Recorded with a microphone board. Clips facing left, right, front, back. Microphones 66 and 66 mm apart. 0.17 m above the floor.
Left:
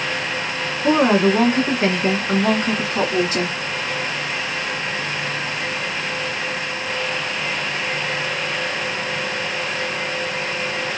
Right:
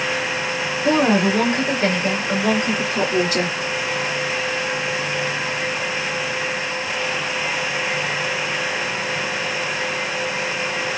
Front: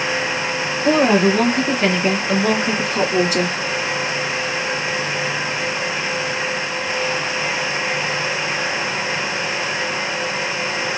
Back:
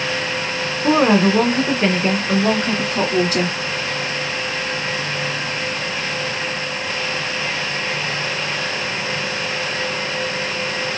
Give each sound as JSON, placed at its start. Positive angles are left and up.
{"t": 0.8, "sound": "a woman speaking", "azimuth_deg": 140, "distance_m": 2.0}